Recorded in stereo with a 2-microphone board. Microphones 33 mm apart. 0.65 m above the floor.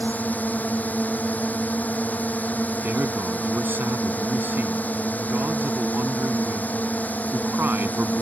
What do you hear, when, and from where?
0.0 s a drone: 55° left (ahead or behind)
2.8 s a man speaking: 80° right